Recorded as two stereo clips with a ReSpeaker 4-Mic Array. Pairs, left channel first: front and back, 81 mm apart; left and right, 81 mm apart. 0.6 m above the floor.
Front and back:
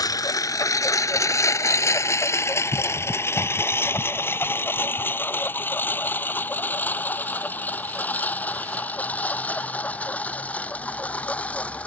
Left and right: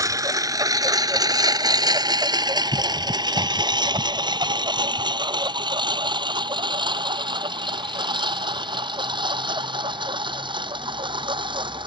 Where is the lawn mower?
40° right; by 11.9 s 75° right.